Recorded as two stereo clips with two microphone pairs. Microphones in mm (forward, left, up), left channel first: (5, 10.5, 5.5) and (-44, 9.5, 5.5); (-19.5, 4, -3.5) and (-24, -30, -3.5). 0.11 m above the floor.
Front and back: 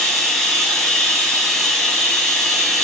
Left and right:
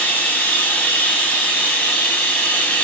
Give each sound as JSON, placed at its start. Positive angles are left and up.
{"t": 0.0, "sound": "running water", "azimuth_deg": 90, "distance_m": 4.5}